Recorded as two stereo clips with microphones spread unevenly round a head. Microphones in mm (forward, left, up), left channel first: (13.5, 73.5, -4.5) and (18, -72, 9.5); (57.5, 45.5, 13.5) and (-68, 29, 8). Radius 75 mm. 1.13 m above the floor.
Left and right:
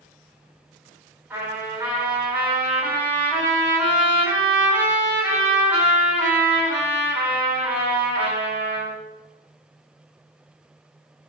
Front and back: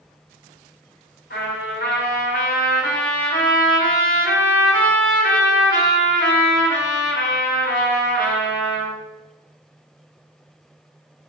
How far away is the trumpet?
About 4 m.